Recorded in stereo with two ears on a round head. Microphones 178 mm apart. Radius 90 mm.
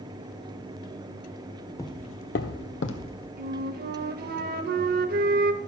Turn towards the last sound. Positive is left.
turn(degrees=-45)  # may be behind; listen again after turning